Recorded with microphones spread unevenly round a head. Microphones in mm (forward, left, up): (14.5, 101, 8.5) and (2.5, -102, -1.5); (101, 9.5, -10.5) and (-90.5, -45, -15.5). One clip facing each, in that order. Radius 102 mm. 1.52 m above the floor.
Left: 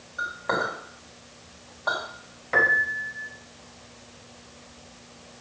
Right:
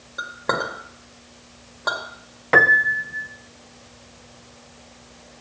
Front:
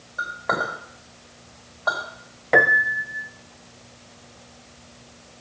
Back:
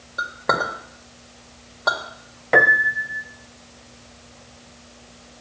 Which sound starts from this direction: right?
A piano, at 2.5 s.